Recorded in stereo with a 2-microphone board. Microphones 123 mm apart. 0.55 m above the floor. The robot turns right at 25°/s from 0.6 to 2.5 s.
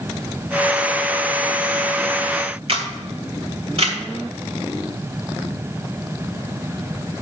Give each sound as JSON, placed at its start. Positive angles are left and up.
{"t": 2.7, "sound": "a camera shutter", "side_deg": -55, "distance_m": 2.0}